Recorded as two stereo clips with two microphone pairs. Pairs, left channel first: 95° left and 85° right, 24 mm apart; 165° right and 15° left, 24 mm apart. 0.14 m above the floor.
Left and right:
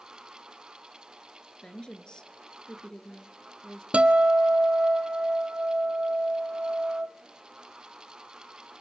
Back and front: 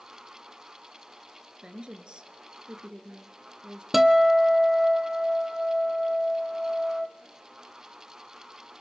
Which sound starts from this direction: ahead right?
A guitar, at 3.9 s.